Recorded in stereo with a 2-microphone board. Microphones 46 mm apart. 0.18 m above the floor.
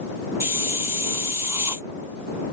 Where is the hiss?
55° right (ahead or behind).